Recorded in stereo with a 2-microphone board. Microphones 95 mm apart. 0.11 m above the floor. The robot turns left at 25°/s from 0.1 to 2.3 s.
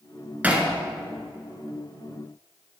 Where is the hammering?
20° right (ahead or behind), 1.3 m.